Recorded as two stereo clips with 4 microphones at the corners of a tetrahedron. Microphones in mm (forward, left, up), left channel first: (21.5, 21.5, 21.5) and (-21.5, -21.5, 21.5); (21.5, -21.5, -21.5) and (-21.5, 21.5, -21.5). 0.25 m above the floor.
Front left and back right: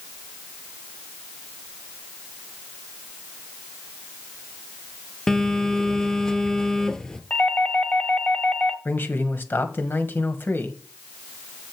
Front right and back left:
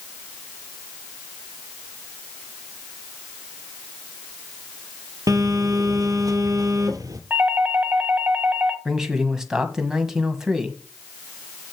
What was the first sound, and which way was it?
A phone buzzing, 125° left.